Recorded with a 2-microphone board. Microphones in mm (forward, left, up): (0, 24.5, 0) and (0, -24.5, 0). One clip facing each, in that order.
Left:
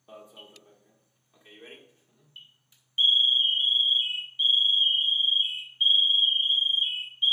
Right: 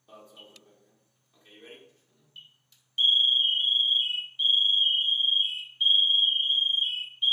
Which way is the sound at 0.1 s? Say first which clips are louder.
Left 2 dB; 20° left (ahead or behind).